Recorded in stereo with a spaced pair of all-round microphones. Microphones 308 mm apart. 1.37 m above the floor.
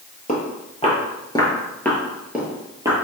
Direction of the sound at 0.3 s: 25° left (ahead or behind).